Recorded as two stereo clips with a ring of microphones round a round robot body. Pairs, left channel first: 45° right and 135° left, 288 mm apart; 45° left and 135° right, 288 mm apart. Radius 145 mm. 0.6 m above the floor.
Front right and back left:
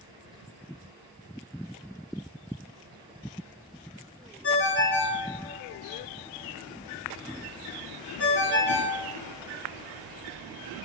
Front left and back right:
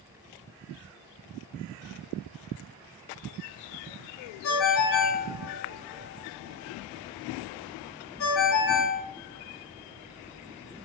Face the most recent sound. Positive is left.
turn(degrees=0)